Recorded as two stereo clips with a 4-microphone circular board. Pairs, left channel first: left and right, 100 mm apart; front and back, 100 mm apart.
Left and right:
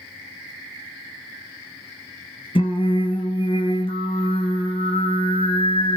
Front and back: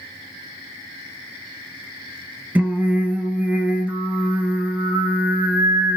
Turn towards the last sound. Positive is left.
turn(degrees=105)